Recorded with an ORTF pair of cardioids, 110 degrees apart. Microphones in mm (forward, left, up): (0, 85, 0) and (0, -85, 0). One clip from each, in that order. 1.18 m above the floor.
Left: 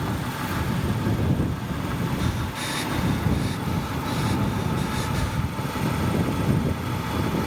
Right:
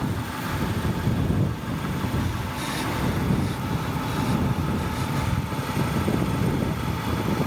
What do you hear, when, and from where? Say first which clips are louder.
2.2 s breathing: left 1 dB; 25° left